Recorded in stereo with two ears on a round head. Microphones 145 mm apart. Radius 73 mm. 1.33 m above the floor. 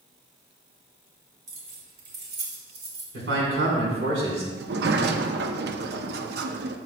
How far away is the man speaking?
About 4 m.